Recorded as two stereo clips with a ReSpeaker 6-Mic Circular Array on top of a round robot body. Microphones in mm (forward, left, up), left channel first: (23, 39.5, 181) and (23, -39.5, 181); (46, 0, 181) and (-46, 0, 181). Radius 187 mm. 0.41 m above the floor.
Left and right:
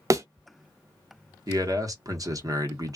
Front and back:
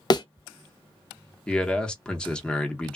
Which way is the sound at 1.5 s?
80° right.